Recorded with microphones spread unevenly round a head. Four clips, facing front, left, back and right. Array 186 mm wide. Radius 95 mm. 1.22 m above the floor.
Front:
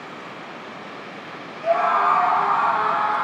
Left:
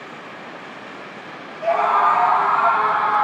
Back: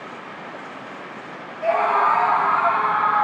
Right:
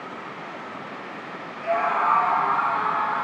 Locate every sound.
1.6 s a scream: 135° left, 1.9 m; by 3.2 s 115° left, 3 m